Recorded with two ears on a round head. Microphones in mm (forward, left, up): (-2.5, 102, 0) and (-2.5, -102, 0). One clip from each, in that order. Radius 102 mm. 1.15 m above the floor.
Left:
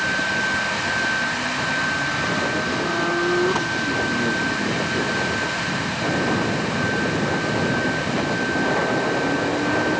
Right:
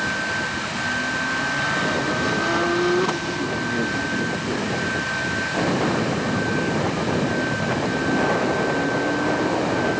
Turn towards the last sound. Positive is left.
No sound to turn to.